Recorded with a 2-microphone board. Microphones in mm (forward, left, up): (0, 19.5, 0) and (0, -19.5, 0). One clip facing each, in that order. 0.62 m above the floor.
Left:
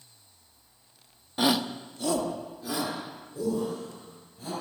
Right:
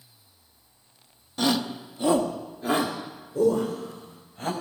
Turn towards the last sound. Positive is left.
turn(degrees=-60)  # may be behind; listen again after turning